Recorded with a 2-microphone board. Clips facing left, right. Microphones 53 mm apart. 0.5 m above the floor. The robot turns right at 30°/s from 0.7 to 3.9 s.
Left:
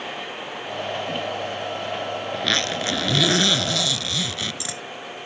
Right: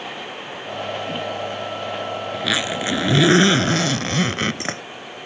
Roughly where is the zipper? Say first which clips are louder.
Right 1 dB; behind.